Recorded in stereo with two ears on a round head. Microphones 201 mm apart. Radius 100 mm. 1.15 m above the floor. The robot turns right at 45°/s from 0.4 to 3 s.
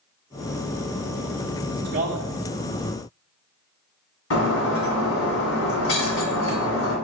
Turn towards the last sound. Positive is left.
turn(degrees=65)  # may be behind; listen again after turning